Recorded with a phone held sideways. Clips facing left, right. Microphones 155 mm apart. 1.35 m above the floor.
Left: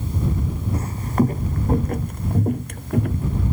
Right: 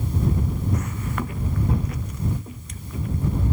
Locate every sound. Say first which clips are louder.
0.7 s footsteps: left 7 dB; 30° left (ahead or behind); by 3.4 s 65° left (ahead or behind)